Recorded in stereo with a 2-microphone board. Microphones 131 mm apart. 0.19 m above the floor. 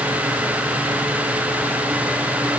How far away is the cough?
I don't hear a cough.